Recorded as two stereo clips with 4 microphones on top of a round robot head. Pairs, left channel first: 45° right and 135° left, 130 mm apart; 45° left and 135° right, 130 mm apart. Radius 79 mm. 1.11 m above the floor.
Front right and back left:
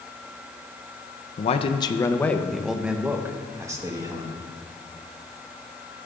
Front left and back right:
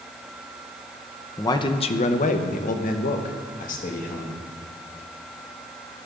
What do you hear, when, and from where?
1.4 s a man speaking: 15° right, 0.7 m; by 4.4 s 70° left, 1.7 m